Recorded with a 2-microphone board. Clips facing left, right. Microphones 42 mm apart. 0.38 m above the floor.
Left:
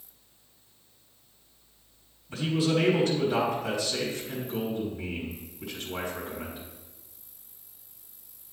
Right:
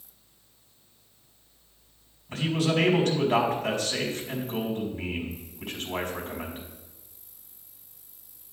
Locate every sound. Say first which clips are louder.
2.3 s a man speaking: even; 65° right (ahead or behind), 3 m